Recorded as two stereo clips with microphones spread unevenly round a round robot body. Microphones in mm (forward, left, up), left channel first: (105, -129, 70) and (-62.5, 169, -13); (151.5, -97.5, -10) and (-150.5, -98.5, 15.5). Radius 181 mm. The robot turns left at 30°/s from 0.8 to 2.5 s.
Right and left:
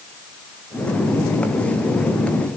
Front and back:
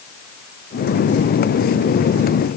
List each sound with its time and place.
Only background noise.